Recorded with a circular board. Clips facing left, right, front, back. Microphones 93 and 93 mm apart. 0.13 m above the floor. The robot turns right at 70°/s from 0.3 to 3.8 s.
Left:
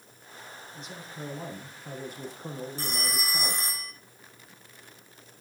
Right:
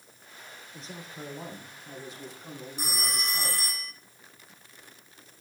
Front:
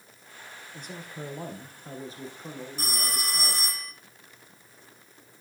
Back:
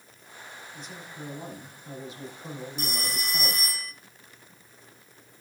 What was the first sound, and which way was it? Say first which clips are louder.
A man speaking: even, front 4 dB; 45° right.